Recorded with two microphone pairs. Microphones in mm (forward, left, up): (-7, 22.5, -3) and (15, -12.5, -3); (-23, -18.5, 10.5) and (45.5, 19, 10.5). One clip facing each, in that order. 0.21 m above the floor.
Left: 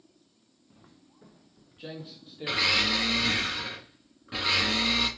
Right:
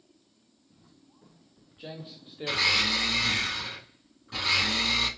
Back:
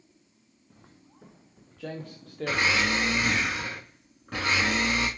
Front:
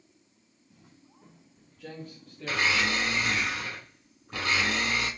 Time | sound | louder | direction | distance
0.7 | footsteps | left 2 dB, back 2 dB | 170° left | 1.1 m
2.5 | a blender | even, back 2 dB | 170° right | 2.5 m